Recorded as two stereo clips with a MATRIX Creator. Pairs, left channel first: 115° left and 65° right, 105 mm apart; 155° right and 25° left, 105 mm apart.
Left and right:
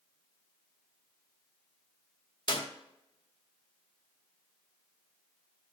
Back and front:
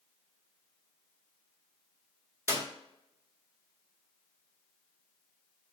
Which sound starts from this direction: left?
A clap, at 2.5 s.